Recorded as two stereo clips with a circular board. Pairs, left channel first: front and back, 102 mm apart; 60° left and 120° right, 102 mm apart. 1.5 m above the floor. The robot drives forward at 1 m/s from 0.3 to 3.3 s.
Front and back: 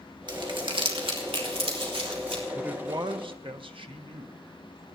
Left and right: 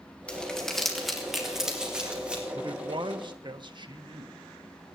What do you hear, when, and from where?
0.3 s crumpling: 140° left, 1.9 m; by 2.4 s 160° left, 3.5 m
2.5 s a man speaking: 100° right, 0.5 m; by 4.4 s 155° right, 1.0 m